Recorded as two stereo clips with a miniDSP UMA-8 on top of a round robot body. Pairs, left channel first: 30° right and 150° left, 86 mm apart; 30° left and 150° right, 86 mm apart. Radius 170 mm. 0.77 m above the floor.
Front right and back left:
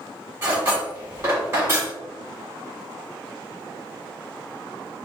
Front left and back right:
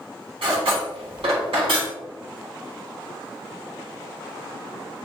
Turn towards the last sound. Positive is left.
turn(degrees=-145)